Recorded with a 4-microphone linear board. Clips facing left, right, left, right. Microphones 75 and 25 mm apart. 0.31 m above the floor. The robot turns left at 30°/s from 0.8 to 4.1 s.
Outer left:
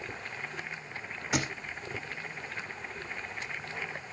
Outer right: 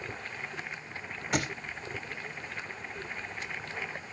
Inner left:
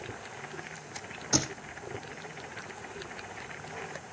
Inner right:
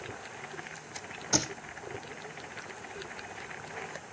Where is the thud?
5° left (ahead or behind), 2 m; by 1.5 s centre (ahead or behind), 2 m.